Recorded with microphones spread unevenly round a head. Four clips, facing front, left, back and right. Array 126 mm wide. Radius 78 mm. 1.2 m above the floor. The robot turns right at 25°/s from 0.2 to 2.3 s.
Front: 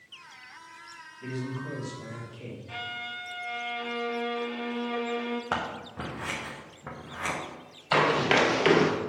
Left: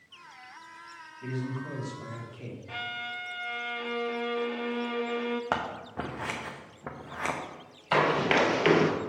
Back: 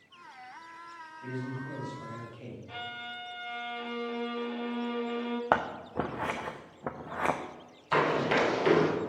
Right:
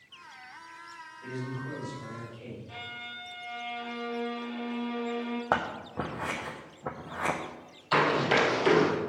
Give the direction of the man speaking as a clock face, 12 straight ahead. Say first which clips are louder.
Left 2 dB, front 3 dB; 11 o'clock.